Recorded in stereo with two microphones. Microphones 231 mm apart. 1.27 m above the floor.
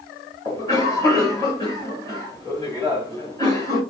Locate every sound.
0.5 s a cough: 15° left (ahead or behind), 1.6 m